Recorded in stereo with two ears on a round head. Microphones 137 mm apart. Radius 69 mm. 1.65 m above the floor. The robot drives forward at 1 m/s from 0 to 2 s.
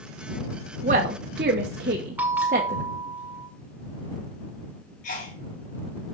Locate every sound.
0.8 s a woman speaking: 45° right (ahead or behind), 1.2 m; by 2.8 s 55° right (ahead or behind), 1.1 m
2.2 s a bell: 10° right (ahead or behind), 1.7 m
5.0 s a sneeze: 55° left (ahead or behind), 3.5 m